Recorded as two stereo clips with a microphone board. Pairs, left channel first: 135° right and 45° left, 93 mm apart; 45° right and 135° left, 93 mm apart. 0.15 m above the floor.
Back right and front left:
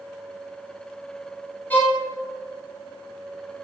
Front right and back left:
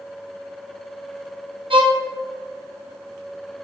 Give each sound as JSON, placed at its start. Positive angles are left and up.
{"t": 1.7, "sound": "a violin", "azimuth_deg": 155, "distance_m": 1.7}